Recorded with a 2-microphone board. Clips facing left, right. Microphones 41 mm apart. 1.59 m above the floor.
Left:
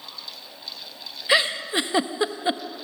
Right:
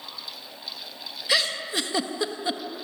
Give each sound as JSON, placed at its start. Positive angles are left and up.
{"t": 1.3, "sound": "a giggle", "side_deg": 25, "distance_m": 1.0}